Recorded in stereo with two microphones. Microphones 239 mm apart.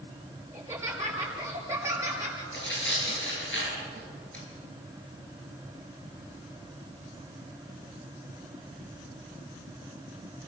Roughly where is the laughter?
Centre.